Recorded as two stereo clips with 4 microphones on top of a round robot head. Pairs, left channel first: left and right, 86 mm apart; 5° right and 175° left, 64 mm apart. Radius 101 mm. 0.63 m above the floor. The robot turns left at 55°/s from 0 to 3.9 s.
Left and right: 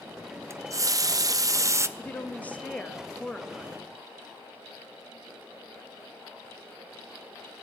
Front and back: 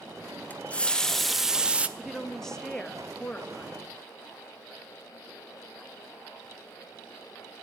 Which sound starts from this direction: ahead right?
A running tap, at 0.5 s.